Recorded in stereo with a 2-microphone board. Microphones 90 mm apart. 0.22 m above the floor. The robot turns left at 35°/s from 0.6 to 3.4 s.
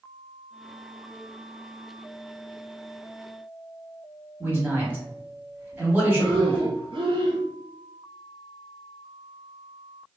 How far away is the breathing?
About 0.8 m.